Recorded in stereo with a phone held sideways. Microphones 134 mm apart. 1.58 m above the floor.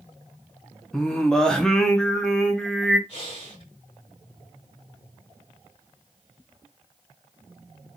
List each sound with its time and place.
0.9 s singing: 5° left (ahead or behind), 0.8 m
3.1 s breathing: 55° left (ahead or behind), 2.5 m